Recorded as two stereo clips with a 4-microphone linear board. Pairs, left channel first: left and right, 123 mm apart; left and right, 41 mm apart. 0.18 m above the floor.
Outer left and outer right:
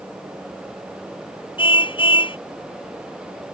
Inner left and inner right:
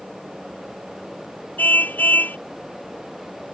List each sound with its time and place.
1.6 s a car horn: 45° left (ahead or behind)